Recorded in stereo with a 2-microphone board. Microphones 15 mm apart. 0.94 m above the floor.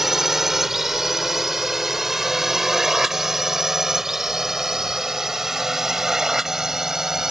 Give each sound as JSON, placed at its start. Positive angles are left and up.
{"t": 0.0, "sound": "a drone", "side_deg": -15}